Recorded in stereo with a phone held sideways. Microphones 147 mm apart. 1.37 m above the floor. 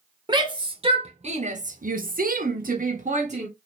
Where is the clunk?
I don't hear a clunk.